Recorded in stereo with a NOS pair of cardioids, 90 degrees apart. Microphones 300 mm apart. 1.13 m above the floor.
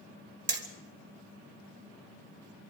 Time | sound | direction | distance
0.5 | hammering | 35° right | 3.5 m